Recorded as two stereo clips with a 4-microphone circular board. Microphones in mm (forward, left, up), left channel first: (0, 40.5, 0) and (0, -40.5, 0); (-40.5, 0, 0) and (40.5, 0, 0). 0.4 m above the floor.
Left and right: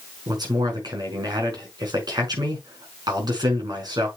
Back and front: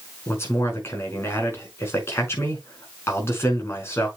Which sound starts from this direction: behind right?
A man speaking, at 0.3 s.